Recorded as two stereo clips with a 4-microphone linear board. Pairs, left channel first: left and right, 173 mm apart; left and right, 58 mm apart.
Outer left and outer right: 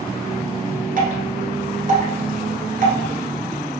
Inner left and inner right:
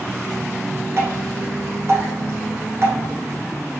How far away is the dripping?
About 1.2 m.